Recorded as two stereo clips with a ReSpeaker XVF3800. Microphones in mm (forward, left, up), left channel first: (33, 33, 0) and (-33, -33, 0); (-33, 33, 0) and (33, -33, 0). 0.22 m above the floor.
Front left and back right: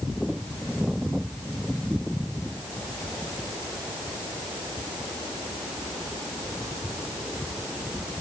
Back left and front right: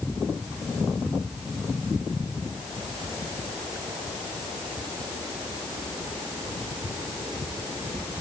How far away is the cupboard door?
No cupboard door in this recording.